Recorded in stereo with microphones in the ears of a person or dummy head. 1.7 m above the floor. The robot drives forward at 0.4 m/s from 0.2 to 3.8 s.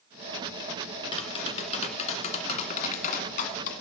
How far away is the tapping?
About 2.5 m.